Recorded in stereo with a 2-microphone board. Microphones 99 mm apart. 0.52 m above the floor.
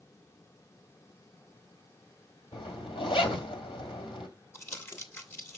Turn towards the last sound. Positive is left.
turn(degrees=25)  # may be behind; listen again after turning